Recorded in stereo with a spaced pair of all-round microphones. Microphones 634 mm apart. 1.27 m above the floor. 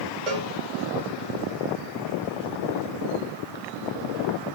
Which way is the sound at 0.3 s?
80° right.